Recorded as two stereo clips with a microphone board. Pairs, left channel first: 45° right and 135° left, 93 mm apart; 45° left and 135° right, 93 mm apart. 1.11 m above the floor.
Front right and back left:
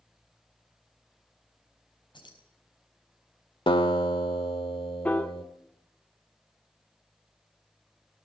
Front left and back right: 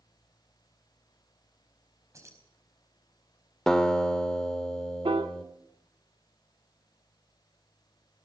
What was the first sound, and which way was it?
Keys jangling, 75° right.